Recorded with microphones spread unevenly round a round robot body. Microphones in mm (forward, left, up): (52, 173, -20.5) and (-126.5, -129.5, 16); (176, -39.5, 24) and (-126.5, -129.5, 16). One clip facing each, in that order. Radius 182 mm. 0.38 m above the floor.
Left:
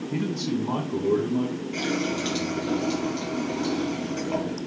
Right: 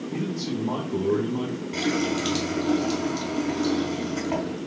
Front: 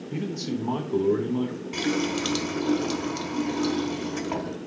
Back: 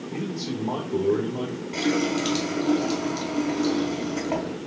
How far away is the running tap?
About 1.0 m.